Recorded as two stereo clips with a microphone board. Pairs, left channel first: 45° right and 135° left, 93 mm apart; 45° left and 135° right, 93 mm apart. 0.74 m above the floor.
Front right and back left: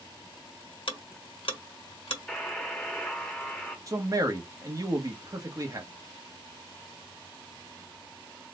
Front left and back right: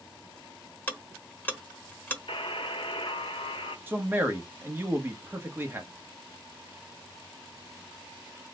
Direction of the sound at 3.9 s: 165° left.